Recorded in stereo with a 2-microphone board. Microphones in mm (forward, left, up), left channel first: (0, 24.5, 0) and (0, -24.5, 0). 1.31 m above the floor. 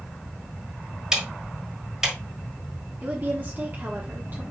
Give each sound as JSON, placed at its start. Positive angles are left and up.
{"t": 1.1, "sound": "ticking", "side_deg": -15, "distance_m": 2.5}
{"t": 3.0, "sound": "a woman speaking", "side_deg": -40, "distance_m": 1.3}